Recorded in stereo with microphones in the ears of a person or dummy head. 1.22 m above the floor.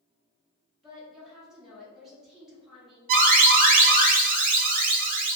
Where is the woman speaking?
Centre (ahead or behind), 0.6 m.